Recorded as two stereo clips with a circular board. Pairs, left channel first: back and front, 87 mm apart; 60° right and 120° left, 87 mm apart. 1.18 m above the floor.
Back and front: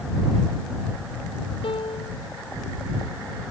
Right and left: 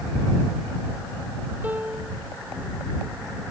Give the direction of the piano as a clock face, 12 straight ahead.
6 o'clock.